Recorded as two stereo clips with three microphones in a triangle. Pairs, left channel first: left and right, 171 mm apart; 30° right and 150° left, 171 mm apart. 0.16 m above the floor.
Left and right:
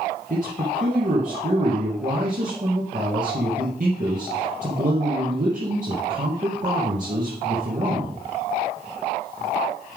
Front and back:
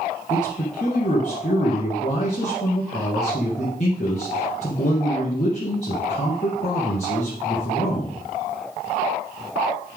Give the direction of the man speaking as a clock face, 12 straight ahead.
2 o'clock.